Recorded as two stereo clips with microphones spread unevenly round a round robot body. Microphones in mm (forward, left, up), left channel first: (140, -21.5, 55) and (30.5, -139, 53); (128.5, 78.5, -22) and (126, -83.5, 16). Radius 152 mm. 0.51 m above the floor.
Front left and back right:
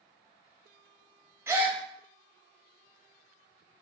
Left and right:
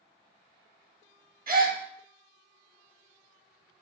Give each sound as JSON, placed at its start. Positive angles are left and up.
{"t": 1.5, "sound": "a gasp", "azimuth_deg": -60, "distance_m": 0.9}